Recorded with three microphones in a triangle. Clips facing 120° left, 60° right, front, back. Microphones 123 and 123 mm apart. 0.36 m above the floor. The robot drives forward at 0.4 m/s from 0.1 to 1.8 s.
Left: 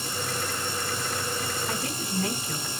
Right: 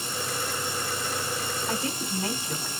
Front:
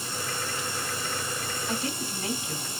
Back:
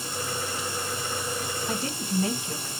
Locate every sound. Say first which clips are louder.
1.7 s a woman speaking: right 1 dB, back 2 dB; 125° right, 2 m